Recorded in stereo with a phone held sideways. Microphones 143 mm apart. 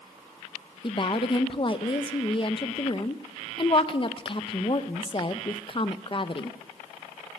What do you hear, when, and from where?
0.8 s a woman speaking: 40° left (ahead or behind), 0.6 m